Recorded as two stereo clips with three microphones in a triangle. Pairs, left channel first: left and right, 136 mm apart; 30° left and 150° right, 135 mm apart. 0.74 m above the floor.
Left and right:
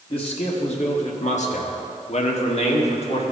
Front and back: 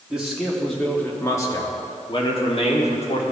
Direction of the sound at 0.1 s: 130° left.